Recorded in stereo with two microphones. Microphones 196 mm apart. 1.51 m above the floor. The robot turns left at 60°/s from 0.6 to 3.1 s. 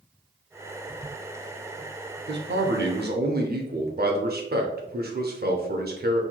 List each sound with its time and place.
2.3 s a man speaking: 70° right, 0.6 m; by 6.2 s 120° right, 0.6 m